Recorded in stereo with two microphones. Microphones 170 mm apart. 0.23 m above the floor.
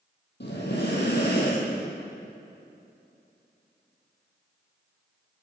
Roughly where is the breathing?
Left.